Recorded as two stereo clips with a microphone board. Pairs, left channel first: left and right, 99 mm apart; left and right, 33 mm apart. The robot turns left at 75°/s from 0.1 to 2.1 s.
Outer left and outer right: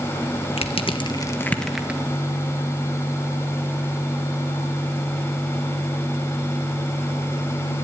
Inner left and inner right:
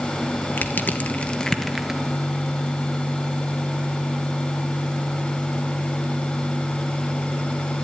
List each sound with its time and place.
0.6 s crushing: 80° left, 1.5 m; by 2.0 s 20° right (ahead or behind), 1.5 m